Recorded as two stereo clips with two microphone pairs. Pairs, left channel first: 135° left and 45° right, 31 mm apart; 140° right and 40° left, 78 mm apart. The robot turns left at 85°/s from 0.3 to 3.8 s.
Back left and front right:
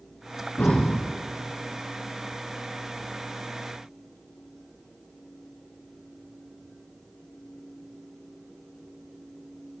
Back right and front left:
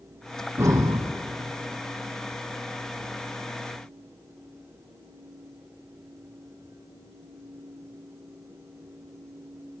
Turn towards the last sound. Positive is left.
turn(degrees=-170)